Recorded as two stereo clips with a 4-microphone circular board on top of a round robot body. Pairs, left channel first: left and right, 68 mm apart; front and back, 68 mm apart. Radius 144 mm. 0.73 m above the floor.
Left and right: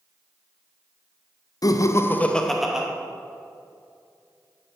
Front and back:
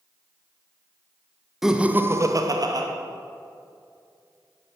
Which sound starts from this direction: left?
Laughter, at 1.6 s.